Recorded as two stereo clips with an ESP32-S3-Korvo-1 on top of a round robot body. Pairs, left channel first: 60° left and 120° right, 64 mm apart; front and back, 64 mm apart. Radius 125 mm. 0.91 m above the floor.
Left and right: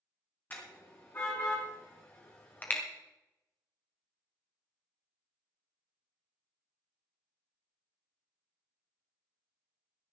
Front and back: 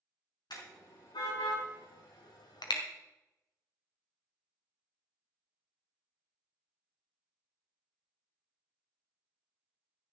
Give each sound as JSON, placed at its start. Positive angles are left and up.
{"t": 0.5, "sound": "a car horn", "azimuth_deg": -5, "distance_m": 5.0}